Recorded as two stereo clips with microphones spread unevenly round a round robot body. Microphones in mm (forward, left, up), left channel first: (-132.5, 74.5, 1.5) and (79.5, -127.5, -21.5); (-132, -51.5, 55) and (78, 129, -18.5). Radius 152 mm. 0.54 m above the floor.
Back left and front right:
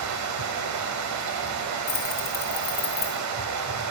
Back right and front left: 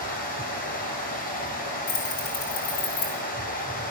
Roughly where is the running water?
Right.